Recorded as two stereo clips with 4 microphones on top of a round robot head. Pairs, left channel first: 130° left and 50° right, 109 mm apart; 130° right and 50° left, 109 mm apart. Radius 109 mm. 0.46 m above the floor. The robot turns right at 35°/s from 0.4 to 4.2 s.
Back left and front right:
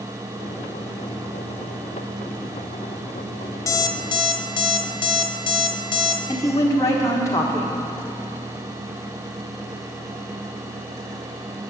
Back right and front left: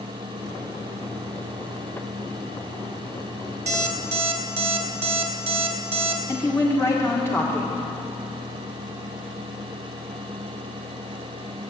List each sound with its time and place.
3.7 s an alarm clock: 65° left, 1.5 m; by 6.2 s 85° left, 1.5 m
6.3 s a woman speaking: 175° left, 1.7 m